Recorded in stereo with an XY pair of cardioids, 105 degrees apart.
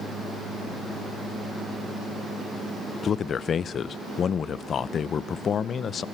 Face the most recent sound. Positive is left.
turn(degrees=50)